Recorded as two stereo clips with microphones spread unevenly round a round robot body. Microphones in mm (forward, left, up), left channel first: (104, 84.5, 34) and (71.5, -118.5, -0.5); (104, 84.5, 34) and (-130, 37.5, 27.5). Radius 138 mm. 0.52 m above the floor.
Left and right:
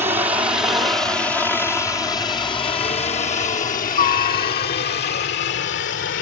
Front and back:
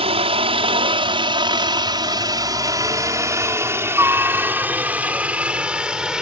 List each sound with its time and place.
0.0 s a helicopter: 140° right; by 6.2 s 105° left